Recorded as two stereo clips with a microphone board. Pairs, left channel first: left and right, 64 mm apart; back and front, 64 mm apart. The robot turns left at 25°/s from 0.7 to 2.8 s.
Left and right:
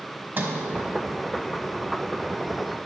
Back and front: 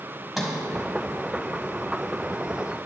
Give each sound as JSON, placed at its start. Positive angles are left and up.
{"t": 0.4, "sound": "a sliding door", "azimuth_deg": -85, "distance_m": 1.6}